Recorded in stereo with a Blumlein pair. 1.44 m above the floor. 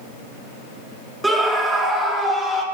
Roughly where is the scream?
Ahead.